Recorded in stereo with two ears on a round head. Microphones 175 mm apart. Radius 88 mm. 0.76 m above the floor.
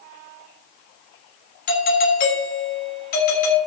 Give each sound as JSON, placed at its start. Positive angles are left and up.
{"t": 1.7, "sound": "a doorbell", "side_deg": 45, "distance_m": 6.0}